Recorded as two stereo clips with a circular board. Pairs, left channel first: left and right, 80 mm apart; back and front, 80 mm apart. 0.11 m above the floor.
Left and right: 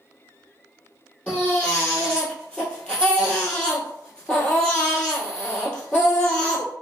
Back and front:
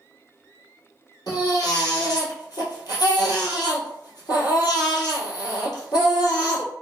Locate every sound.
1.3 s a baby crying: 165° left, 1.6 m